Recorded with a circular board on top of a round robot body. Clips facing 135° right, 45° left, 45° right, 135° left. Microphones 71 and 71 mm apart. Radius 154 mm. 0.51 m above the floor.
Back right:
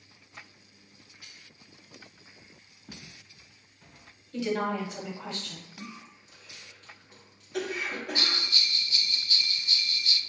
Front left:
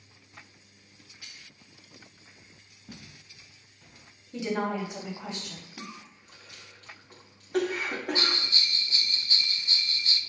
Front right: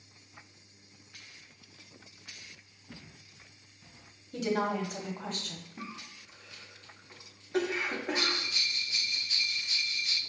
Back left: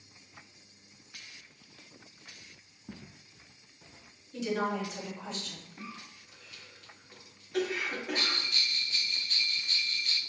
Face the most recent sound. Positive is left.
turn(degrees=35)